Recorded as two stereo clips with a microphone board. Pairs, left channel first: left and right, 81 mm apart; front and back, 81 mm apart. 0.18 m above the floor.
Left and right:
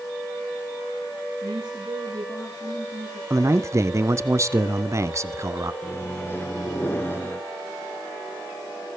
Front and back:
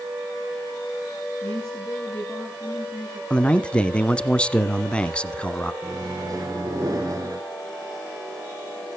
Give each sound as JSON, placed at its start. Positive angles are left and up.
{"t": 1.4, "sound": "a woman speaking", "azimuth_deg": -70, "distance_m": 7.5}
{"t": 3.3, "sound": "a man speaking", "azimuth_deg": -70, "distance_m": 1.3}
{"t": 5.8, "sound": "a microwave", "azimuth_deg": 150, "distance_m": 2.0}